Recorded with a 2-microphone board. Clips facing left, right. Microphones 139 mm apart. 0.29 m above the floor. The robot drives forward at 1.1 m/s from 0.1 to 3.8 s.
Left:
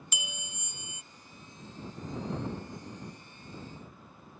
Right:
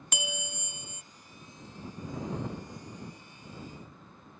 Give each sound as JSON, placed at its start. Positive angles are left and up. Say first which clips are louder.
{"t": 0.1, "sound": "a bell", "louder": "right 9 dB", "side_deg": -60}